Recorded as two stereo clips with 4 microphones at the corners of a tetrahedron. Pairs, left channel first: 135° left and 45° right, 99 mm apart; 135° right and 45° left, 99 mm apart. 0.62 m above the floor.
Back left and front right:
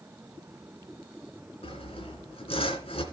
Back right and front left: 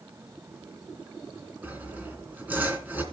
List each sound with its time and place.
1.6 s sawing: 115° left, 2.5 m